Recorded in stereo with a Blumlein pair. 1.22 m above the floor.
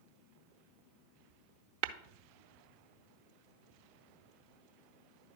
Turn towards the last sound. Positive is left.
turn(degrees=-50)